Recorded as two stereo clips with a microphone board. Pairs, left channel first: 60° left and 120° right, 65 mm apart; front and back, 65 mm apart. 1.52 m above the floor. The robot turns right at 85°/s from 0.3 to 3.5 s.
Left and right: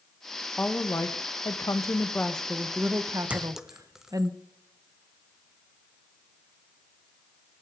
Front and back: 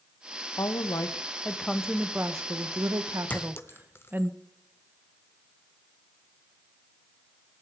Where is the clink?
60° right, 0.7 m; by 4.3 s 40° right, 0.7 m.